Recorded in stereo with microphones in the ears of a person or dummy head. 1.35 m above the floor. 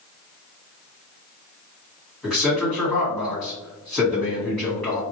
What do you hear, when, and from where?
2.2 s a man speaking: 5° left (ahead or behind), 1.7 m